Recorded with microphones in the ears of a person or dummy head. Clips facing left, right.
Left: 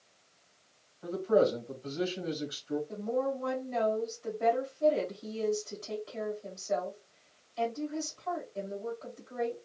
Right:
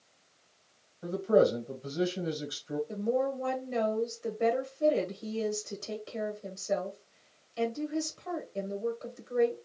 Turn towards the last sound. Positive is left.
turn(degrees=-55)  # may be behind; listen again after turning